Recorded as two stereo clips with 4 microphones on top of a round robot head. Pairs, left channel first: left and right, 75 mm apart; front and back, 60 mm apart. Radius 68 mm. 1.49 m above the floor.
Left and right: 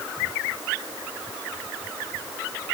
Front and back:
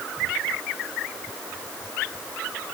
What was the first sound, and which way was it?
Only background noise.